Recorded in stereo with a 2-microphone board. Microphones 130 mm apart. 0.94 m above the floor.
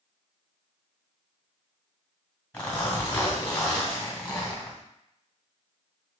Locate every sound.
2.5 s a zipper: 15° left (ahead or behind), 1.6 m